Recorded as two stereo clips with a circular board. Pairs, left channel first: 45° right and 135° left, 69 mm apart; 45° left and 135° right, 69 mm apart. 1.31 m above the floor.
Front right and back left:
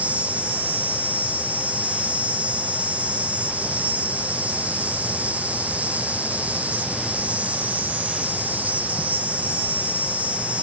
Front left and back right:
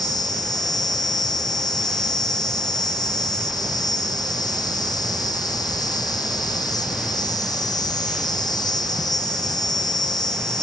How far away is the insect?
About 0.9 m.